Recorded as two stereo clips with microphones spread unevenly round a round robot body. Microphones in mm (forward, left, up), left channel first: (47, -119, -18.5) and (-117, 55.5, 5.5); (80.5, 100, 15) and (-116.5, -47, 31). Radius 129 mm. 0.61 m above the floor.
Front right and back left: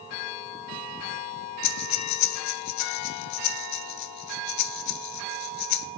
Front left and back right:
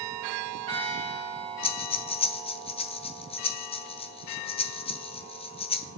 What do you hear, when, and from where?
1.6 s breathing: 30° right, 1.1 m